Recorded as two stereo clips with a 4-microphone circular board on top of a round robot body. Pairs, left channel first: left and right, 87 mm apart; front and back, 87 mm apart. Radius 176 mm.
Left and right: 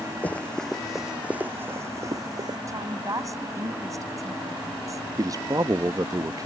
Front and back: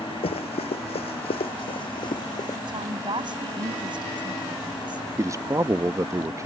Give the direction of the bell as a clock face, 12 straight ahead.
No bell in this recording.